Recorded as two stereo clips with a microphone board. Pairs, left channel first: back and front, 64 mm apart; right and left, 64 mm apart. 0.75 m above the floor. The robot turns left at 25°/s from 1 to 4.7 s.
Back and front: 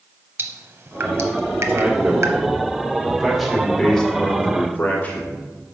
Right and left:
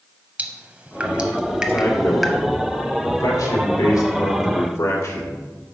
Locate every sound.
0.4 s dripping: 30° left, 0.8 m; by 2.4 s 5° right, 0.8 m
1.7 s a man speaking: 40° right, 1.8 m; by 5.4 s 120° right, 1.8 m